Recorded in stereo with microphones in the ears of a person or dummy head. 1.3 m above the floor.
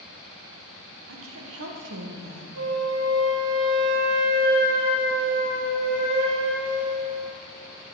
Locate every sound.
1.1 s a woman speaking: 65° right (ahead or behind), 1.2 m; by 2.5 s 50° right (ahead or behind), 1.7 m
2.5 s a flute: 70° right (ahead or behind), 2.5 m